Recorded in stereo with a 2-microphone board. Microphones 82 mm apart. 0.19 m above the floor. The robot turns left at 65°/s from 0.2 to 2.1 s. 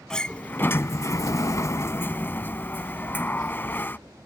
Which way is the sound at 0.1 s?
165° left.